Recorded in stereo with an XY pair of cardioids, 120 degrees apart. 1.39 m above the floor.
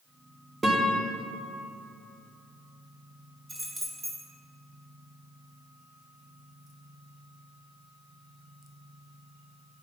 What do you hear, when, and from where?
0.6 s a guitar: 20° right, 1.1 m
3.5 s keys jangling: 25° right, 2 m